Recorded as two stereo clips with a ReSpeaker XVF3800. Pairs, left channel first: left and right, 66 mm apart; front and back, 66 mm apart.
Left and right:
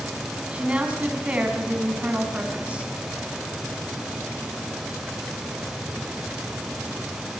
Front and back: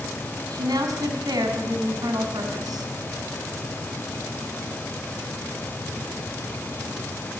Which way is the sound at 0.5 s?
160° right.